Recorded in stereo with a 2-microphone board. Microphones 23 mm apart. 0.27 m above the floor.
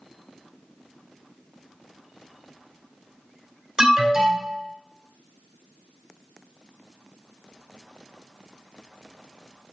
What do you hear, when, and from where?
3.8 s an alarm: 20° right (ahead or behind), 2.5 m